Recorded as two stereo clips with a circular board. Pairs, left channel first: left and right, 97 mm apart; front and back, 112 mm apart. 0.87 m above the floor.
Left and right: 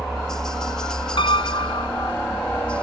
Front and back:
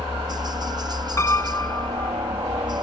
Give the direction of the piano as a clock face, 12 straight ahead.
10 o'clock.